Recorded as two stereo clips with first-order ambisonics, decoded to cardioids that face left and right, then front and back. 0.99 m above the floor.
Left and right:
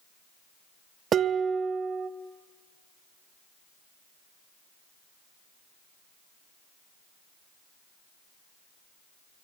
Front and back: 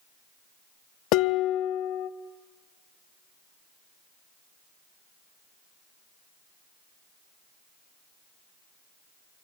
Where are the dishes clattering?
25° right, 0.8 m.